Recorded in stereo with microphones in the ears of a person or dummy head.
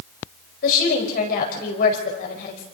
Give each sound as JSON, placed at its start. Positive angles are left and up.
{"t": 0.6, "sound": "a woman speaking", "side_deg": 50, "distance_m": 5.0}